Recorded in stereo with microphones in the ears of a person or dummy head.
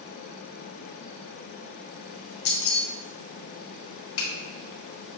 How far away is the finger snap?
About 1.9 m.